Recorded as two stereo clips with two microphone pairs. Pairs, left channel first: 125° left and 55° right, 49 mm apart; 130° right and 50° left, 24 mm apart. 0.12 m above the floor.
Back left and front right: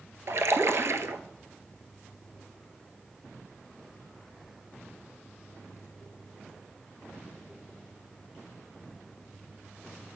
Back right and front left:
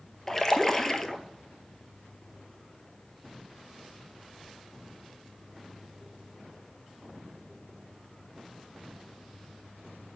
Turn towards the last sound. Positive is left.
turn(degrees=-60)